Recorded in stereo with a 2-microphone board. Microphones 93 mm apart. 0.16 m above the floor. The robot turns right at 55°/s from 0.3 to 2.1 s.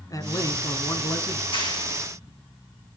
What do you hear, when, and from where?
0.1 s a man speaking: 75° left, 1.5 m; by 1.4 s 140° left, 1.5 m
1.5 s a clap: 70° left (ahead or behind), 7 m; by 1.8 s 50° left (ahead or behind), 7 m